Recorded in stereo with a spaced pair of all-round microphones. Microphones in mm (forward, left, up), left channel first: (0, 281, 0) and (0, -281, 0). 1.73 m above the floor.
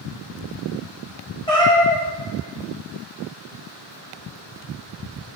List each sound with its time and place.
1.5 s a cat meowing: 10° left (ahead or behind), 1.6 m